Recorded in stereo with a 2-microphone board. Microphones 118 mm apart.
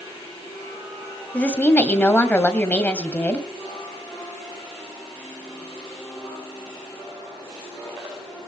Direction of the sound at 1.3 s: 15° left (ahead or behind).